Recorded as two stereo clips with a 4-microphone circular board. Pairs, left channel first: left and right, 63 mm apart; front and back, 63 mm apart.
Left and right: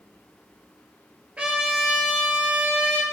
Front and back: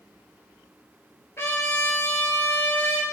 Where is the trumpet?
25° right, 1.9 m.